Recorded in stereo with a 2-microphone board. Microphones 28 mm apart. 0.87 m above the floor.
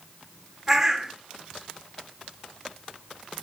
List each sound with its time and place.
0.7 s a bird: 20° right (ahead or behind), 1.3 m